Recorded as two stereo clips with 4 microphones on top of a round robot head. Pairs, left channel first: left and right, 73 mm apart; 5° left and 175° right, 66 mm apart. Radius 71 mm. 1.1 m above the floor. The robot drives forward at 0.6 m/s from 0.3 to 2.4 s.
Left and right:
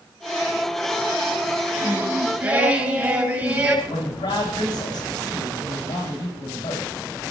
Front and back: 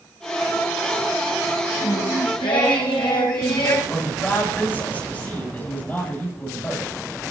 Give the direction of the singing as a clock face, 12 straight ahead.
1 o'clock.